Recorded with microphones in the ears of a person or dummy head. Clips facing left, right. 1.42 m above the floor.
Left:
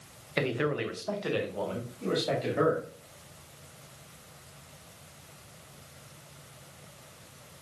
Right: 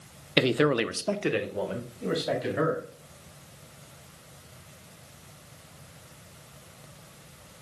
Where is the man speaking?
40° right (ahead or behind), 0.8 m; by 2.9 s 5° right (ahead or behind), 3.5 m.